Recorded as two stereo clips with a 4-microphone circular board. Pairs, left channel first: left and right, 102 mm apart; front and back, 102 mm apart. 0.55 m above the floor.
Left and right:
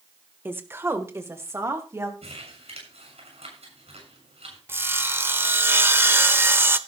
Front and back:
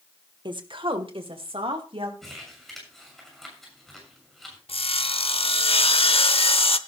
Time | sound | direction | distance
0.5 | a woman speaking | 155° right | 1.2 m
2.2 | crumpling | 85° right | 7 m
4.7 | sawing | 20° right | 0.8 m